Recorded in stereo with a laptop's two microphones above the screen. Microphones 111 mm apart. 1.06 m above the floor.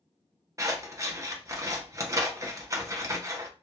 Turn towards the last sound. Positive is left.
turn(degrees=-25)  # may be behind; listen again after turning